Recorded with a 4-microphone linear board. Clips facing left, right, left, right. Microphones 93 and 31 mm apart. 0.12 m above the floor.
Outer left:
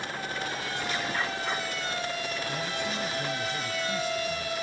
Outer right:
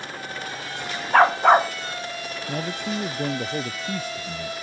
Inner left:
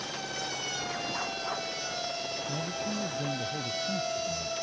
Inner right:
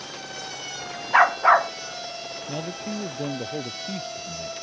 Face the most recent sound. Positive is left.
turn(degrees=-55)  # may be behind; listen again after turning